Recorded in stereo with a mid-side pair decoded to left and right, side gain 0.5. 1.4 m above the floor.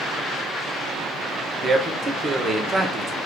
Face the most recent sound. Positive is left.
turn(degrees=-25)